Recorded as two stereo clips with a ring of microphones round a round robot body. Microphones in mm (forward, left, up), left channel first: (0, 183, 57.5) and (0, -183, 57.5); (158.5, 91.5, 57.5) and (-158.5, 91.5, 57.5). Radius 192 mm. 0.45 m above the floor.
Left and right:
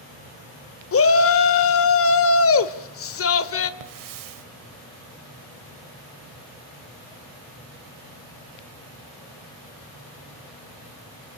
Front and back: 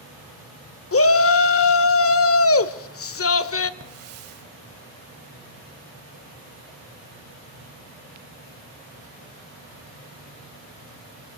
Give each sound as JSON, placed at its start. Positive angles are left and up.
{"t": 0.9, "sound": "a shout", "azimuth_deg": 40, "distance_m": 1.5}
{"t": 3.8, "sound": "a hiss", "azimuth_deg": -130, "distance_m": 1.0}